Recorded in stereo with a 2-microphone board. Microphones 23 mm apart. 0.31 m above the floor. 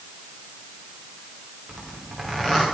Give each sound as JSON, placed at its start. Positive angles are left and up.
{"t": 1.7, "sound": "a zipper", "side_deg": 10, "distance_m": 7.0}